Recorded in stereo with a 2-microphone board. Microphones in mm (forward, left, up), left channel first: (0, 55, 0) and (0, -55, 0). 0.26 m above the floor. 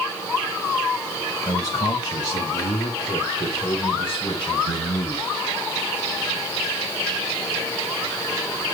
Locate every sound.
1.4 s a man speaking: 30° left (ahead or behind), 1.4 m; by 5.3 s 45° left (ahead or behind), 3.5 m